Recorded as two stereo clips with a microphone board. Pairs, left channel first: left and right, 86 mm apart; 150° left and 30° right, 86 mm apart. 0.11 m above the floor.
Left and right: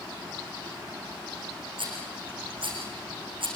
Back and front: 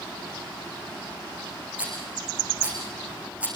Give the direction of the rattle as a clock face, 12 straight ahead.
3 o'clock.